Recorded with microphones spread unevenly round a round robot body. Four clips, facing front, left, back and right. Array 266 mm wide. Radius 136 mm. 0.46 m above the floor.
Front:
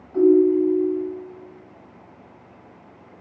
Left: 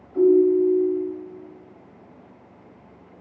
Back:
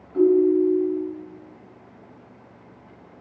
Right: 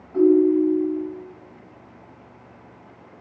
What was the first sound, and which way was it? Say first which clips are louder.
A ringtone: even, front 2 dB; 50° right.